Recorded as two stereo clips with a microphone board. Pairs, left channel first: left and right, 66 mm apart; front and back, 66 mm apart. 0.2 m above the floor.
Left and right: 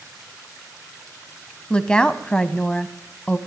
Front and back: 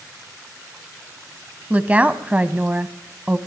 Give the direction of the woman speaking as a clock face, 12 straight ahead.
7 o'clock.